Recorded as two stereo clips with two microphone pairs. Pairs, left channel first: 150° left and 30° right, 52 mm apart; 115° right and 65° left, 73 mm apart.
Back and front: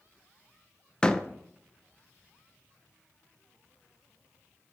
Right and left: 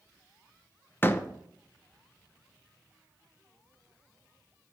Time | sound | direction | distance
1.0 | a door slam | 150° right | 0.7 m